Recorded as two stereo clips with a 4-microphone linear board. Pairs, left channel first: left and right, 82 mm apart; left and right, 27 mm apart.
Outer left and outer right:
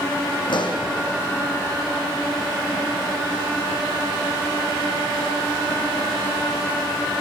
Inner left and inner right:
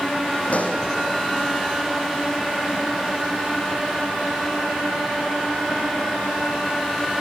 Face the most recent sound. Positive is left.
turn(degrees=65)  # may be behind; listen again after turning